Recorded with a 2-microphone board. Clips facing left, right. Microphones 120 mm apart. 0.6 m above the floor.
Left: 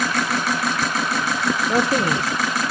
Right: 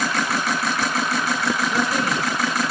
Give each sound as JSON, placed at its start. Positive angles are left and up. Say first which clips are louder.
{"t": 1.7, "sound": "a man speaking", "louder": "left 3 dB", "side_deg": 45, "distance_m": 1.9}